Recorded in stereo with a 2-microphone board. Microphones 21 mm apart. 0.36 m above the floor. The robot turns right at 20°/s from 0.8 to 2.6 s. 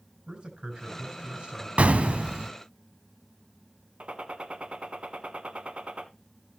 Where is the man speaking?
50° right (ahead or behind), 5 m; by 1.7 s 65° right (ahead or behind), 5 m.